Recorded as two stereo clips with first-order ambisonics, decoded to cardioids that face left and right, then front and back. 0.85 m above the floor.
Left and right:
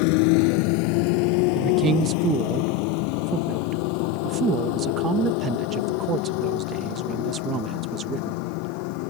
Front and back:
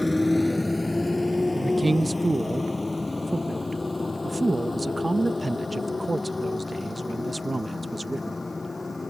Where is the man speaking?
100° right.